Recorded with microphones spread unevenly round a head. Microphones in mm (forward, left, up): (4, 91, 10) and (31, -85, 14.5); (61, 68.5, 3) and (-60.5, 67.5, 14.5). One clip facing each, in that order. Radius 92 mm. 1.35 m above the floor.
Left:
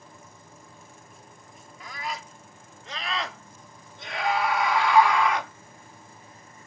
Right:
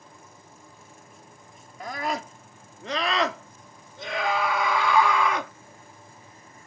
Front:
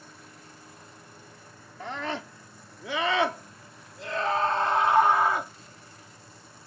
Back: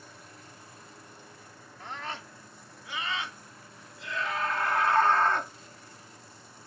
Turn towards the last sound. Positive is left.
turn(degrees=-90)